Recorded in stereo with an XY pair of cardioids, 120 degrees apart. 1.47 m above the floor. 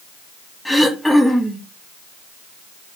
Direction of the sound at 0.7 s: 5° left.